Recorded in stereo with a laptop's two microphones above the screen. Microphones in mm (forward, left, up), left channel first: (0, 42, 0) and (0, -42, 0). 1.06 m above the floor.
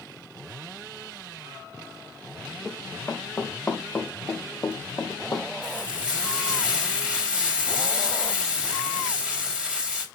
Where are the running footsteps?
10° left (ahead or behind), 3.5 m; by 5.5 s 40° left (ahead or behind), 2.5 m.